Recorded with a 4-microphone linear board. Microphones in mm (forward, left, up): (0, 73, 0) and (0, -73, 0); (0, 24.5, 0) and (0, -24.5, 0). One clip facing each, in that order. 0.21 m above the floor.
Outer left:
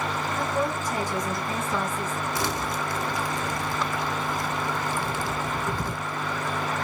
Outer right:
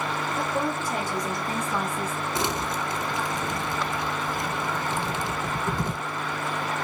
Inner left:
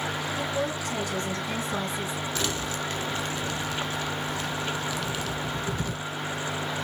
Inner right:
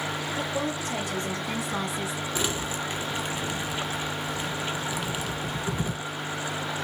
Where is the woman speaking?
30° right (ahead or behind), 3.5 m; by 2.2 s 5° right (ahead or behind), 2.5 m.